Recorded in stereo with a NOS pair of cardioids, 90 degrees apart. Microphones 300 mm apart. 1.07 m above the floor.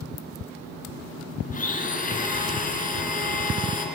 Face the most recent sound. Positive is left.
turn(degrees=25)